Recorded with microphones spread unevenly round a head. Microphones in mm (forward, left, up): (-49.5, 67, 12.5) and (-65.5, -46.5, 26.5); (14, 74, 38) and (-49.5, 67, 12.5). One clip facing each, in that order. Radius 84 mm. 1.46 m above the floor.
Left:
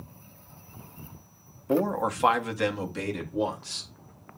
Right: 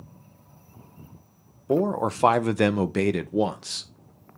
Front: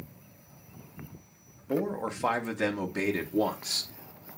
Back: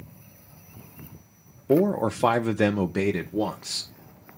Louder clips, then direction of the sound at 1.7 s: Right 2 dB, back 9 dB; 170° right.